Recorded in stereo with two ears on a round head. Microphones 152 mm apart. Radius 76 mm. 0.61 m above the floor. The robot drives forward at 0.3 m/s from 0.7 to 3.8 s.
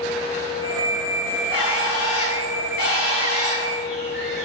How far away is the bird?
About 1.7 m.